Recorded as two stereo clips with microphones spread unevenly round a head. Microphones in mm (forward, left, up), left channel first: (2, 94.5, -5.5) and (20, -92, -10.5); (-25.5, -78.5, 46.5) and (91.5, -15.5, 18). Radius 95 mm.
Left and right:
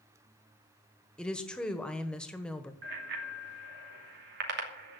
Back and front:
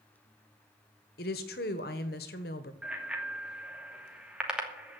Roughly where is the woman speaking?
Behind.